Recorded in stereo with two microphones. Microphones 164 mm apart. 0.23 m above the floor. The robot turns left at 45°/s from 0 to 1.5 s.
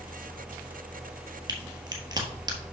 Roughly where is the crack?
Right.